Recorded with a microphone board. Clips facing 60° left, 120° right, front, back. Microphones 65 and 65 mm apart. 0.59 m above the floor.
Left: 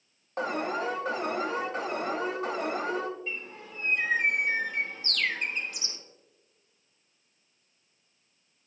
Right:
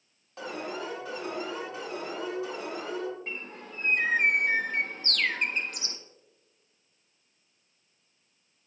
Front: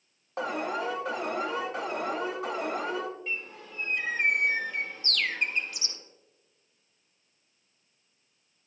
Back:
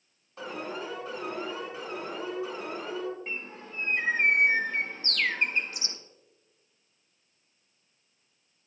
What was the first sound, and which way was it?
An alarm, 20° left.